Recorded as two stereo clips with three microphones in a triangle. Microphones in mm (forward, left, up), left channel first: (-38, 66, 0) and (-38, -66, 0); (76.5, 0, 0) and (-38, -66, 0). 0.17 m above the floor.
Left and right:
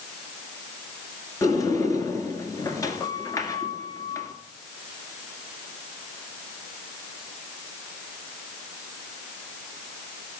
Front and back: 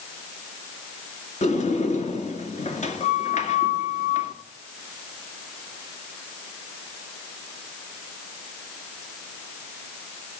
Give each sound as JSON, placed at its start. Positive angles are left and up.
{"t": 1.4, "sound": "a sliding door", "azimuth_deg": 30, "distance_m": 1.6}